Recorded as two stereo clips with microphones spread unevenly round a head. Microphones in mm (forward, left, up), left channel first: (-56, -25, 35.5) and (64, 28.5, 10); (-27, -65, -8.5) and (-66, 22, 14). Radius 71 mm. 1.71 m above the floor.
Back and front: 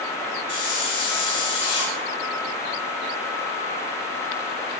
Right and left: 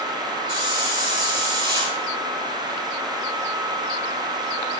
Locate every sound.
0.5 s a hiss: 150° left, 3.5 m